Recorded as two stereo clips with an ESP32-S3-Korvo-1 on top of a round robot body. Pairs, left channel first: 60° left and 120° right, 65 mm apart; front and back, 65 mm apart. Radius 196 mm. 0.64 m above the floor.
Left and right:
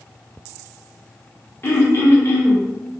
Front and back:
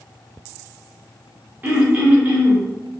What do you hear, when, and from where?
1.6 s throat clearing: 115° left, 1.2 m